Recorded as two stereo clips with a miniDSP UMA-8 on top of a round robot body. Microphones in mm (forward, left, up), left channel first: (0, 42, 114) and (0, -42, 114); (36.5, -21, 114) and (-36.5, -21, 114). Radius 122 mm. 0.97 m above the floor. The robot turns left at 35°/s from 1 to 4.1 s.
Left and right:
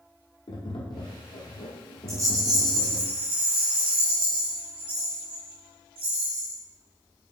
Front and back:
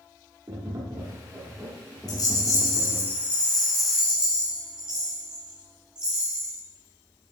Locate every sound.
0.5 s tapping: 130° left, 1.1 m; by 3.1 s 55° left, 1.1 m
2.1 s a rattle: 30° right, 1.3 m; by 6.6 s 100° right, 1.3 m